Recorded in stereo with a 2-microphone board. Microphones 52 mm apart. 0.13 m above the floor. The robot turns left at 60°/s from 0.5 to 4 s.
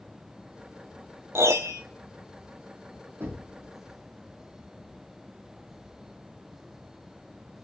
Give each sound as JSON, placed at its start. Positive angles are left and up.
{"t": 1.4, "sound": "a piano", "side_deg": -55, "distance_m": 0.7}
{"t": 3.2, "sound": "knocking", "side_deg": -55, "distance_m": 4.0}